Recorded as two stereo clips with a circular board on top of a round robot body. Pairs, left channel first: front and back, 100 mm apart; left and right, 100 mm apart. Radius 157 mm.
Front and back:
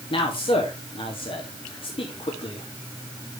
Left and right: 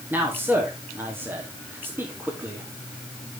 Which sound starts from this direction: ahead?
A man speaking, at 0.1 s.